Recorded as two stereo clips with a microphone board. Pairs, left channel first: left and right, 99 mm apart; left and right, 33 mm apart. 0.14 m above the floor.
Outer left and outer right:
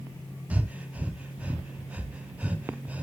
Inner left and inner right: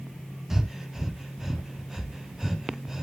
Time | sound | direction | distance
0.5 | breathing | 15° right (ahead or behind) | 1.0 m